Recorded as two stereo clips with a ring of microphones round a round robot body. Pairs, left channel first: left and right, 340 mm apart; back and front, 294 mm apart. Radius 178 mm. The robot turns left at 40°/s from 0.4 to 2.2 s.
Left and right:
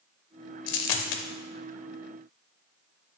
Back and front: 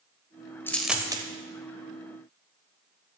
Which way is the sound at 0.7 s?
95° left.